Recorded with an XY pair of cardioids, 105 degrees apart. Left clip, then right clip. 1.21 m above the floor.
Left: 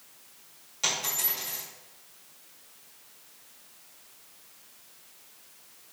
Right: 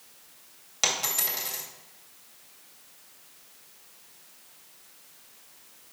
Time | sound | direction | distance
0.8 | a dropped coin | 65° right | 2.5 m